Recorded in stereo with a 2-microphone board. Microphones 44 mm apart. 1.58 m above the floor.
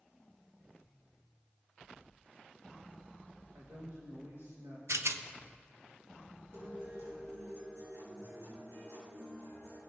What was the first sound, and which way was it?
A man speaking, 65° right (ahead or behind).